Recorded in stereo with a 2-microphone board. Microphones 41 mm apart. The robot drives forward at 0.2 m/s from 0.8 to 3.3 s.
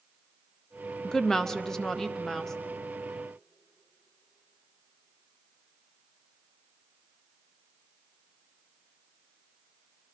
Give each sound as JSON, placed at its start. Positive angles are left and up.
{"t": 1.0, "sound": "a woman speaking", "side_deg": 15, "distance_m": 0.5}